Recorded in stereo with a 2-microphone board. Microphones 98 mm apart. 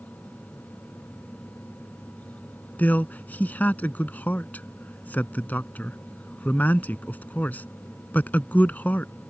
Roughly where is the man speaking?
Centre.